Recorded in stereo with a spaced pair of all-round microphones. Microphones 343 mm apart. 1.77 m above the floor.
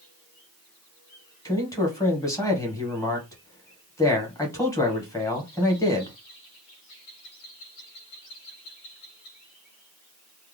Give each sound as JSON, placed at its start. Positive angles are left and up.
{"t": 1.4, "sound": "a man speaking", "side_deg": 10, "distance_m": 1.3}